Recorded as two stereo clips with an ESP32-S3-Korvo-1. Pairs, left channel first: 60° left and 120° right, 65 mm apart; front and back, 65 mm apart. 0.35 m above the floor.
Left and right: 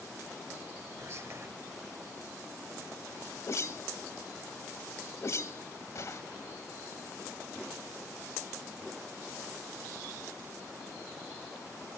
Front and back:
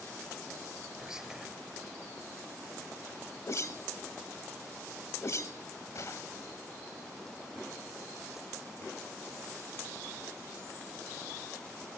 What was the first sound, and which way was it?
Whispering, 105° right.